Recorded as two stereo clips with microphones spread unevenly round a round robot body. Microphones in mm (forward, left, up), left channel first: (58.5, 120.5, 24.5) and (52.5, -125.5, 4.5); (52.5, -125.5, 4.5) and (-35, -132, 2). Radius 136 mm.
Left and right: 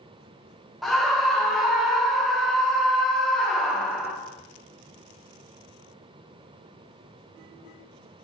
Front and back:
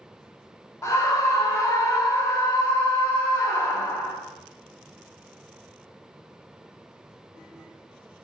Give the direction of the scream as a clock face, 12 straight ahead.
12 o'clock.